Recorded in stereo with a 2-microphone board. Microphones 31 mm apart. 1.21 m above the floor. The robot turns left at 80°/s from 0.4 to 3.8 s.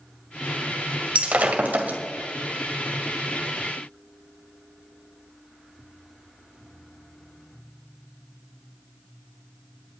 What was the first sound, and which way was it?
Breaking glass, 45° right (ahead or behind).